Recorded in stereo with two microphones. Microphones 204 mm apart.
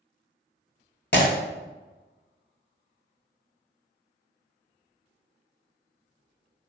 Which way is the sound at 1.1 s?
60° left (ahead or behind).